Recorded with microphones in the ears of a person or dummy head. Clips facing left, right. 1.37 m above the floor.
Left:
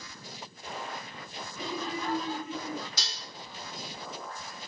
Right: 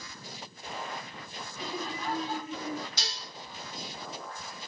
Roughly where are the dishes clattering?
Left.